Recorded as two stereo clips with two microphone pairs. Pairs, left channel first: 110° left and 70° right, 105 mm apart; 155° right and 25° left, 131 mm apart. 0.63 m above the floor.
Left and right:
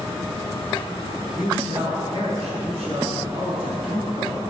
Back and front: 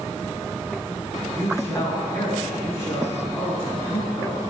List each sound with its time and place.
1.3 s a man speaking: 85° right, 7 m